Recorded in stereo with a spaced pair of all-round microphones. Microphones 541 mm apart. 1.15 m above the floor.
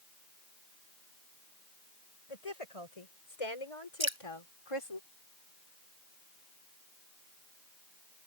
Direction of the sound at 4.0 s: 60° right (ahead or behind).